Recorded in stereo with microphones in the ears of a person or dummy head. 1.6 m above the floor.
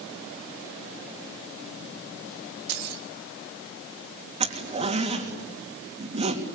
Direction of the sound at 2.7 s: 60° right (ahead or behind).